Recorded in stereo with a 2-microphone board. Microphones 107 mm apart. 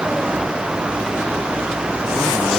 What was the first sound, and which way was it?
Only background noise.